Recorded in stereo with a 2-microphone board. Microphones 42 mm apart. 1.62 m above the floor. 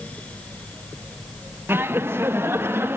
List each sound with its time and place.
1.7 s laughter: 65° right (ahead or behind), 1.3 m; by 3.0 s 70° right (ahead or behind), 2 m